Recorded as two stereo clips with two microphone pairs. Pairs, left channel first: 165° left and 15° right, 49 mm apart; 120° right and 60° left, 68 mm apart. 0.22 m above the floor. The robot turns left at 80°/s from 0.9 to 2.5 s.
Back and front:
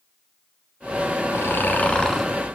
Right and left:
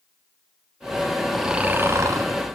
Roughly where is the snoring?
Behind left.